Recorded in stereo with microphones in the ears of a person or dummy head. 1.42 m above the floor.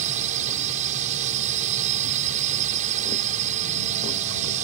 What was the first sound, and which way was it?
A drone, 45° right (ahead or behind).